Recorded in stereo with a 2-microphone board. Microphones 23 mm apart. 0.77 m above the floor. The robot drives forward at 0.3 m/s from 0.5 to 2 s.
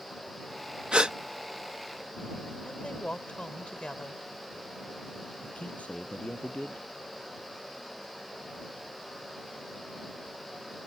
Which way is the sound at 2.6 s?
55° left (ahead or behind).